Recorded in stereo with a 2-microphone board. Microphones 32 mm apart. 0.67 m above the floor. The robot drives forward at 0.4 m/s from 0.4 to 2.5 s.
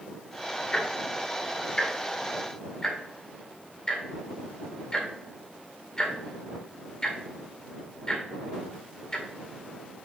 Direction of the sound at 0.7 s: 35° left (ahead or behind).